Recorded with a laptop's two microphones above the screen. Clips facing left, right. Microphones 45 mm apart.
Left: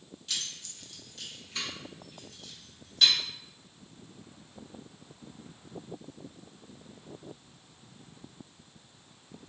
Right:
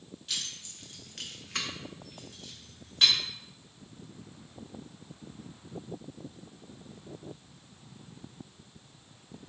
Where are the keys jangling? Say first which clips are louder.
Even; 5° right (ahead or behind), 0.9 m; by 3.1 s 35° right (ahead or behind), 1.7 m.